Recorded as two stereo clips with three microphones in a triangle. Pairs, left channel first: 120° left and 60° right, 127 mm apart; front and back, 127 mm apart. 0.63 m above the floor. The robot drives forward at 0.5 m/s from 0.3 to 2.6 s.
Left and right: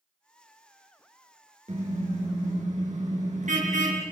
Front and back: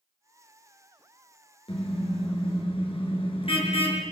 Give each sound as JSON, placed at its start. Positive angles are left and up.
{"t": 1.7, "sound": "a car horn", "azimuth_deg": -40, "distance_m": 4.5}